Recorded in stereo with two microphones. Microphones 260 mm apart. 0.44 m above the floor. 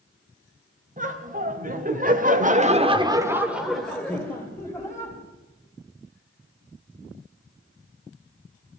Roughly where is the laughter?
Right.